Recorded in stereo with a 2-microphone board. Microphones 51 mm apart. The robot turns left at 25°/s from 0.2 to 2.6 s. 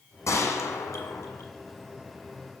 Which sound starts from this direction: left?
A gunshot, at 0.3 s.